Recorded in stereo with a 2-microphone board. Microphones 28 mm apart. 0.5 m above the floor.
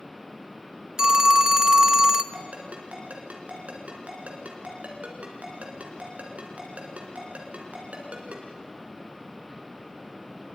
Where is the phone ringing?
20° right (ahead or behind), 0.6 m.